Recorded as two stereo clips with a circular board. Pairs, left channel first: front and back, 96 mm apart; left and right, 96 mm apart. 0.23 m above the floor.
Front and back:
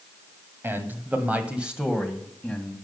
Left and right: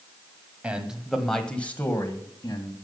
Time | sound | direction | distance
0.6 | a man speaking | 150° right | 1.5 m